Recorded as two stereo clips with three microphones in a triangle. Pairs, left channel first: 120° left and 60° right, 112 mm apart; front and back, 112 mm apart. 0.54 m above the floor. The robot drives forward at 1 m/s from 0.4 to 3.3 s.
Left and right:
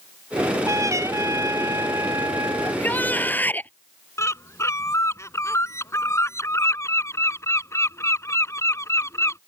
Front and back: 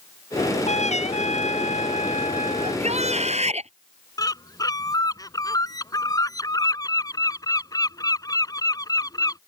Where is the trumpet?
Straight ahead; by 2.8 s 5° left.